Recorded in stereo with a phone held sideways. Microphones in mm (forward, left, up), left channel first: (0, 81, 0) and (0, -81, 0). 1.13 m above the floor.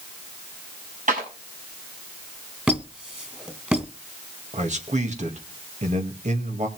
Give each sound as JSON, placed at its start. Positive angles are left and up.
{"t": 1.1, "sound": "a clap", "side_deg": -55, "distance_m": 6.5}
{"t": 2.7, "sound": "a squeak", "side_deg": -10, "distance_m": 1.7}
{"t": 4.5, "sound": "a man speaking", "side_deg": -50, "distance_m": 1.8}